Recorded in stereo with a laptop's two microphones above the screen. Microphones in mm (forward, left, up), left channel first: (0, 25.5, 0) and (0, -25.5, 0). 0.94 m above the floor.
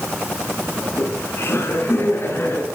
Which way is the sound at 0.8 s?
50° left (ahead or behind).